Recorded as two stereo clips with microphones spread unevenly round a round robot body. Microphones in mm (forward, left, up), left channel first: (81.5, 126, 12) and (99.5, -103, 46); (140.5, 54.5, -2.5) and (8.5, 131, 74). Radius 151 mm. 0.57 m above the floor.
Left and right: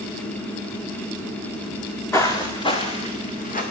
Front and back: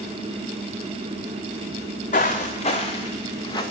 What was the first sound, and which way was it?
Footsteps, 5° left.